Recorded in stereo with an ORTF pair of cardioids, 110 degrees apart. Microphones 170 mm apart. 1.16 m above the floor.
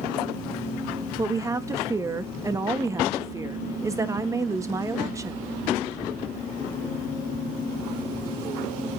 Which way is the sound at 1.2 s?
20° right.